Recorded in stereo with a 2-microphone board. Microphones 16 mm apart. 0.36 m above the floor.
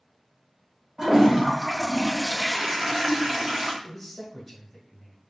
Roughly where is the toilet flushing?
Right.